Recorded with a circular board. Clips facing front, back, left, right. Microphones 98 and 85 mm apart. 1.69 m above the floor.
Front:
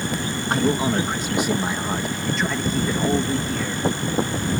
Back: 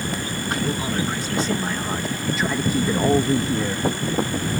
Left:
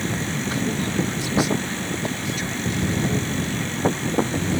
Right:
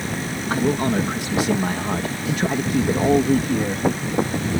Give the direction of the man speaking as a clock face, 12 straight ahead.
2 o'clock.